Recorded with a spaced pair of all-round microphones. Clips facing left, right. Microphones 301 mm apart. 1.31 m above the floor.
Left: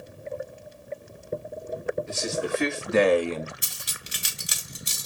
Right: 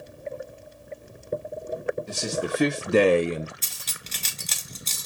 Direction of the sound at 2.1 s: 40° right (ahead or behind).